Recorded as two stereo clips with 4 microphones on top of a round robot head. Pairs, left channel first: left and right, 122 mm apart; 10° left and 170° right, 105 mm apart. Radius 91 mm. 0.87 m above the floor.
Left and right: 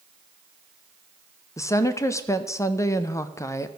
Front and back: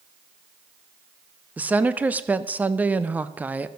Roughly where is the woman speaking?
Behind left.